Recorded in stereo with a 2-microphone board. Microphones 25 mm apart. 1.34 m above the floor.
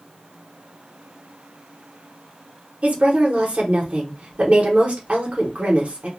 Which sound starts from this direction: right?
A woman speaking, at 2.8 s.